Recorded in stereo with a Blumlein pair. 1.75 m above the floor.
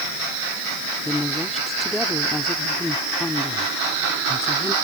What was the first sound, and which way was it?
A woman speaking, 5° left.